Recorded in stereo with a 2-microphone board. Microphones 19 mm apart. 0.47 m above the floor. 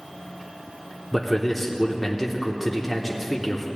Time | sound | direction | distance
1.1 | a man speaking | 5° left (ahead or behind) | 0.7 m